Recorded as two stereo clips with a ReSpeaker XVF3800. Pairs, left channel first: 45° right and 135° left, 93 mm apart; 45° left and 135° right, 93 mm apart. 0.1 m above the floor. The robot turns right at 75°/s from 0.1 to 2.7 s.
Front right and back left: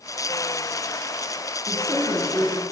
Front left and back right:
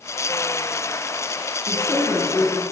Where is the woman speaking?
75° left, 1.8 m; by 2.6 s 145° left, 1.8 m.